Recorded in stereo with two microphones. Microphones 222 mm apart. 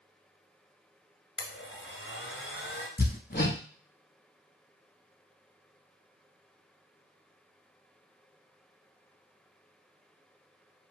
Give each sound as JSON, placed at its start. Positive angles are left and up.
{"t": 1.4, "sound": "a blender", "side_deg": 65, "distance_m": 1.3}
{"t": 3.0, "sound": "hammering", "side_deg": 50, "distance_m": 0.7}